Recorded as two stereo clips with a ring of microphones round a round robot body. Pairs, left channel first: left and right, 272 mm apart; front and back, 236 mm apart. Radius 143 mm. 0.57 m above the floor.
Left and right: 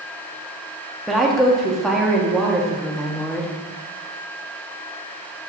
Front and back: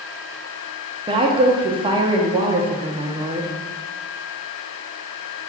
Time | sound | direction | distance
1.1 | a woman speaking | straight behind | 0.6 m